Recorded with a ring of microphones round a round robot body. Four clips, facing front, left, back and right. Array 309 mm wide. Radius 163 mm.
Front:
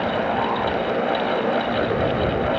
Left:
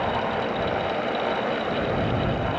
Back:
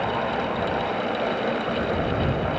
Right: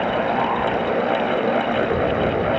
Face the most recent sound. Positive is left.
No sound to turn to.